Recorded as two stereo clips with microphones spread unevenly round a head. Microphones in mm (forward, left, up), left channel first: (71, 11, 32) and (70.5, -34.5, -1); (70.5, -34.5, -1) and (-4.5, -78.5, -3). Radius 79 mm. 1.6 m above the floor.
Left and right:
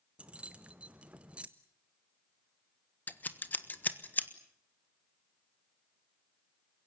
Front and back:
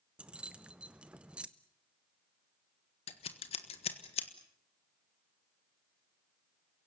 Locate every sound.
0.2 s keys jangling: 140° left, 0.6 m
3.1 s scissors: 50° left, 1.5 m